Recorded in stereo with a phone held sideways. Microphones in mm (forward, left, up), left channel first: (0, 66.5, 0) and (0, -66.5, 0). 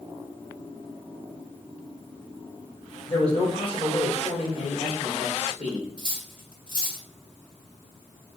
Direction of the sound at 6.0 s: 40° left (ahead or behind).